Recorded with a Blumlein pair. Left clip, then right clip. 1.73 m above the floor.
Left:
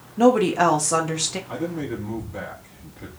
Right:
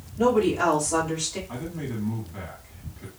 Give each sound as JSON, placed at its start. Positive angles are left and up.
{"t": 0.2, "sound": "a woman speaking", "azimuth_deg": 30, "distance_m": 1.2}
{"t": 1.5, "sound": "a man speaking", "azimuth_deg": 10, "distance_m": 1.5}